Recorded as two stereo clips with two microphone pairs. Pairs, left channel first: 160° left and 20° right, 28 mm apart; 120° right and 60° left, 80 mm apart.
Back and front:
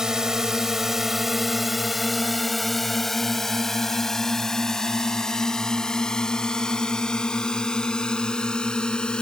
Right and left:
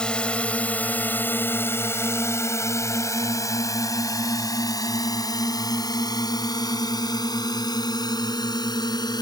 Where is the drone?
55° right; by 9.2 s 140° right.